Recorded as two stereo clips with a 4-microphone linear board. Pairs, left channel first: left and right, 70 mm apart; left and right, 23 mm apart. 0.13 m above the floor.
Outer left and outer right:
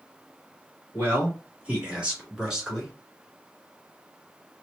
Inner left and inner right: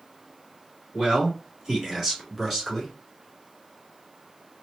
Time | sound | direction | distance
0.9 | a man speaking | 30° right (ahead or behind) | 1.3 m